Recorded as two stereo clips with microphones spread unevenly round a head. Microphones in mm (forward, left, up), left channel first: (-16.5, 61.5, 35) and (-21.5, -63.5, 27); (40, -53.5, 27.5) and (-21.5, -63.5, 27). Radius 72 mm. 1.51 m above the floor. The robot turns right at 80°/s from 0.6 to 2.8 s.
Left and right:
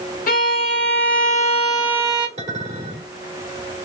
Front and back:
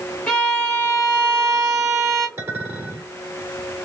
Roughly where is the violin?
Left.